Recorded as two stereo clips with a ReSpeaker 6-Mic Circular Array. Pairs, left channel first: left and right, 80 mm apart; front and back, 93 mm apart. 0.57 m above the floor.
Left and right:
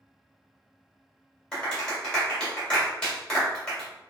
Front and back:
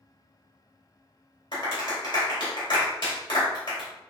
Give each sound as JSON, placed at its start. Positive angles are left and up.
{"t": 1.5, "sound": "a clap", "azimuth_deg": 10, "distance_m": 2.0}